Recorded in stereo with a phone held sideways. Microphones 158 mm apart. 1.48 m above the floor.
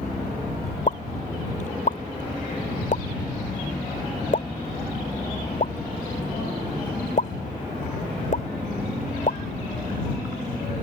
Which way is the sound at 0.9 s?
55° left (ahead or behind).